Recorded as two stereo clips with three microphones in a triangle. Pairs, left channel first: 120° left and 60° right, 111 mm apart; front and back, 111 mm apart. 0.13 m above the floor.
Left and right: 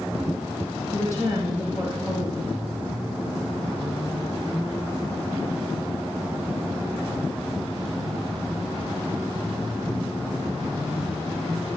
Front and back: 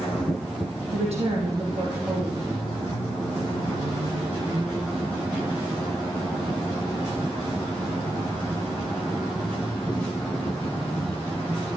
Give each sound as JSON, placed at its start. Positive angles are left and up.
{"t": 0.9, "sound": "a woman speaking", "azimuth_deg": -175, "distance_m": 3.5}